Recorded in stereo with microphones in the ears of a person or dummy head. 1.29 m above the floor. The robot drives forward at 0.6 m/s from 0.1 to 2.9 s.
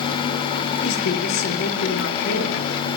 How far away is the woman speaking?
About 3 m.